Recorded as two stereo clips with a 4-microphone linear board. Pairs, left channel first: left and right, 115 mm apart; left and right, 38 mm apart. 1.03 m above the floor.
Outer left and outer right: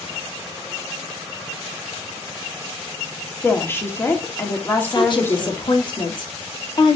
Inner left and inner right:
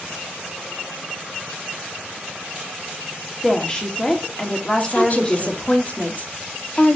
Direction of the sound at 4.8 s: 45° left (ahead or behind).